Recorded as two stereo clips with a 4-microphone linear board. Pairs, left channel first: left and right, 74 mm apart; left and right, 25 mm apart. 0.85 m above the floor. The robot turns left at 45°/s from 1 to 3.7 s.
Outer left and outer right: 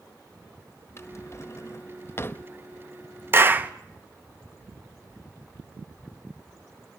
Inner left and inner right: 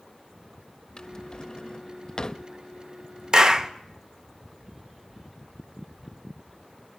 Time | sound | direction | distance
1.0 | a drawer | 40° left (ahead or behind) | 0.7 m
3.3 | a clap | 35° right (ahead or behind) | 0.9 m